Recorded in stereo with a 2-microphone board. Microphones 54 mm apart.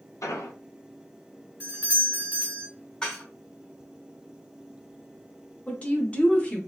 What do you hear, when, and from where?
0.2 s an explosion: 80° left, 0.8 m
1.6 s a doorbell: 30° right (ahead or behind), 1.4 m
3.0 s dishes clattering: 15° left (ahead or behind), 0.8 m
5.7 s a woman speaking: 25° left (ahead or behind), 0.8 m